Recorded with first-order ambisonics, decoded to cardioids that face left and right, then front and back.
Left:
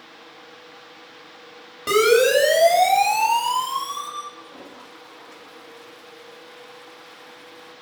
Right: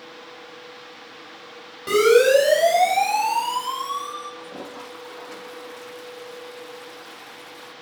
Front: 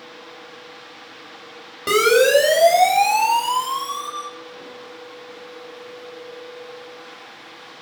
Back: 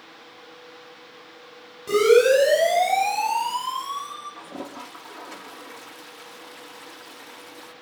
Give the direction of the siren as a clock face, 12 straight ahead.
11 o'clock.